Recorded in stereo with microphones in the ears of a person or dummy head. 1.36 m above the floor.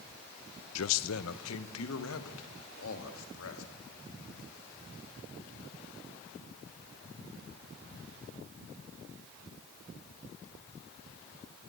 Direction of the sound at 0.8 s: 90° left.